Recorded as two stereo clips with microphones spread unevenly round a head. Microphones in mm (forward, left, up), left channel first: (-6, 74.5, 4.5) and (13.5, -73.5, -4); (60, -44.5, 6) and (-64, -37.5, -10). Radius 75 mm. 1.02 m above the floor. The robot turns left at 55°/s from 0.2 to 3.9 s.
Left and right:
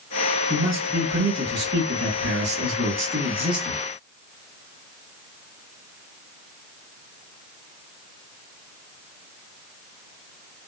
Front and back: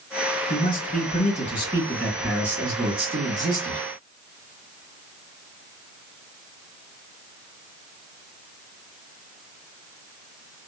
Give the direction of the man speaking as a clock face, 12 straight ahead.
12 o'clock.